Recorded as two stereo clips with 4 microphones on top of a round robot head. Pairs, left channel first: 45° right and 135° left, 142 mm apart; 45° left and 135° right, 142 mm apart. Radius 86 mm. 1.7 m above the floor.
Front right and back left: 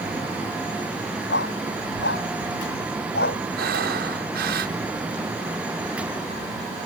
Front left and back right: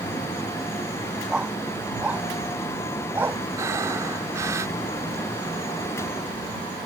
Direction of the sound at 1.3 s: 50° right.